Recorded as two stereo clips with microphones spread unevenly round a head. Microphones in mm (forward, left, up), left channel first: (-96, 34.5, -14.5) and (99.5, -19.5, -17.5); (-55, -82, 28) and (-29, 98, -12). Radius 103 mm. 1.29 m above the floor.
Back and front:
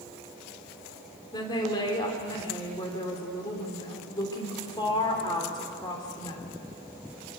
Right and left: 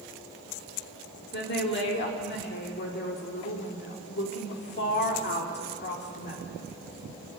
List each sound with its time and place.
1.3 s a woman speaking: 125° right, 3 m